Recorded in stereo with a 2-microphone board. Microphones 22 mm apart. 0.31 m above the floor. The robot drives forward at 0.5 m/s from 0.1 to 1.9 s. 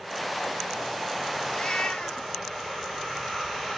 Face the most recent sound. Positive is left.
turn(degrees=60)  # may be behind; listen again after turning